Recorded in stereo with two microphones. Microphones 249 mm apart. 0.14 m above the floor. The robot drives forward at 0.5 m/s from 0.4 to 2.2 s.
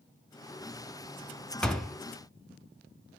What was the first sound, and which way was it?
A door slam, 5° left (ahead or behind).